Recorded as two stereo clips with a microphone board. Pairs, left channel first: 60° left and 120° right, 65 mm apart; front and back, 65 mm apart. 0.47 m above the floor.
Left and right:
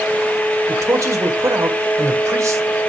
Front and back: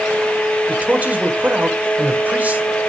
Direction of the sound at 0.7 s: 125° right.